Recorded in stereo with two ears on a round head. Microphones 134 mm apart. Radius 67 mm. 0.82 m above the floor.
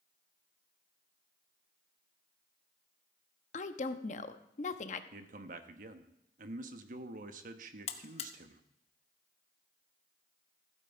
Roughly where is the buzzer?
Left.